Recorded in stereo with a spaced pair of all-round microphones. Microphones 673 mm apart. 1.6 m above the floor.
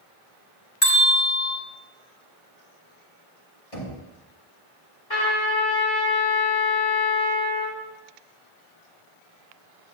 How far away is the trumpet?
About 2.5 m.